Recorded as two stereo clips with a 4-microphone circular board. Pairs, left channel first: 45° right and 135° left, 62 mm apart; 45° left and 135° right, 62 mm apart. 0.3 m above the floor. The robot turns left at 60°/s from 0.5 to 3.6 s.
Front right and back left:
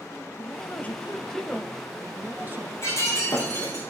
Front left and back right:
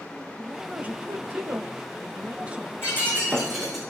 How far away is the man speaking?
About 1.3 m.